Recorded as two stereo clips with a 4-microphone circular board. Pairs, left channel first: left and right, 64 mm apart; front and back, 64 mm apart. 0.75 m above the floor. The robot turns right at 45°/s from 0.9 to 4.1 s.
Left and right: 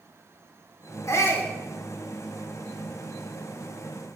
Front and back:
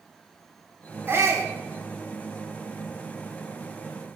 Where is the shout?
125° left, 1.7 m; by 1.5 s 150° left, 1.7 m.